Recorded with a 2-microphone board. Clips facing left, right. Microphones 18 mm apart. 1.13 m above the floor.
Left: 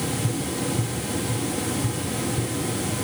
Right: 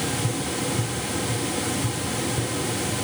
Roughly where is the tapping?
Centre.